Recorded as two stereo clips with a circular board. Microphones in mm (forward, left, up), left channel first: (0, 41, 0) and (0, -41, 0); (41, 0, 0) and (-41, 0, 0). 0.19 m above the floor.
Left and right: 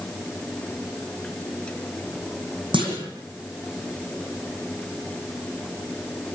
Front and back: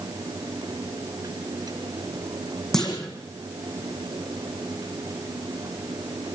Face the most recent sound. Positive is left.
turn(degrees=-85)